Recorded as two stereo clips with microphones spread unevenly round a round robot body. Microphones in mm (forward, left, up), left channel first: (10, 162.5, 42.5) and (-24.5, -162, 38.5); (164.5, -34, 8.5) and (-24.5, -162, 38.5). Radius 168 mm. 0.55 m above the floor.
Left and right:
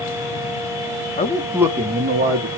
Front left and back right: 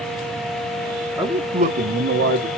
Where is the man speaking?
130° left, 1.0 m; by 2.5 s 125° right, 1.4 m.